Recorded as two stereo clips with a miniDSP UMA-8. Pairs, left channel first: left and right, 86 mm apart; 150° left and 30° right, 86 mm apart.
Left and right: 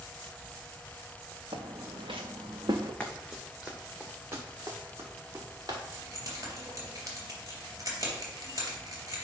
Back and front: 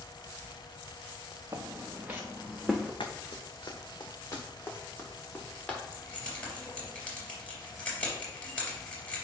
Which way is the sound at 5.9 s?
135° right.